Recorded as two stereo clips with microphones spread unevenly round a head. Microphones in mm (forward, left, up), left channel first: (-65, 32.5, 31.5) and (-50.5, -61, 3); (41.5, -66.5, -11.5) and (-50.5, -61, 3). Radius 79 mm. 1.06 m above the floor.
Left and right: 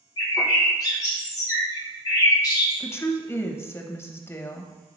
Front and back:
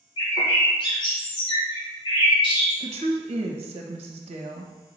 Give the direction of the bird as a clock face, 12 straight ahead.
11 o'clock.